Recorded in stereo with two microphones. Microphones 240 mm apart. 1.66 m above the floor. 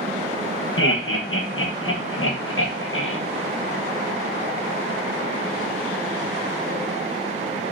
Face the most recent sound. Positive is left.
turn(degrees=60)  # may be behind; listen again after turning